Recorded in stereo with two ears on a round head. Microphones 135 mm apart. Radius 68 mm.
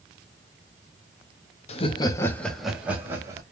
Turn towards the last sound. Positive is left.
turn(degrees=-20)  # may be behind; listen again after turning